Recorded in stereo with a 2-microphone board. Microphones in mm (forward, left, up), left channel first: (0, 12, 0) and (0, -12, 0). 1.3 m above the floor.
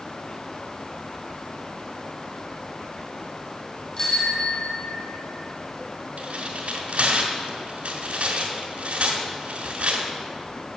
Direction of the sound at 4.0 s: 35° left (ahead or behind).